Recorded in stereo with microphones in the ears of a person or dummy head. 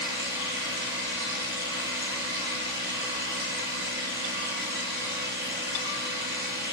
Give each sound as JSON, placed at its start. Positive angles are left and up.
{"t": 0.0, "sound": "a machine running", "side_deg": -60, "distance_m": 6.0}